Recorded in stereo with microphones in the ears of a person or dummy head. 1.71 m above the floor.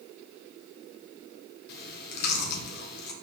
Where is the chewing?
65° left (ahead or behind), 1.6 m.